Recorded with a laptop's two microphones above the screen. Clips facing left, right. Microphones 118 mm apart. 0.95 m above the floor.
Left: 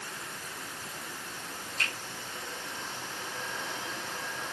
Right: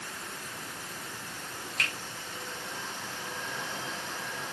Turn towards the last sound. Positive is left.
turn(degrees=-85)